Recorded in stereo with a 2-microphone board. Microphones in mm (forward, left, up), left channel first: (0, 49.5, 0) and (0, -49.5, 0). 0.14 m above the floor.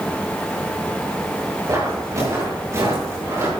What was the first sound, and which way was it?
Footsteps, 35° right (ahead or behind).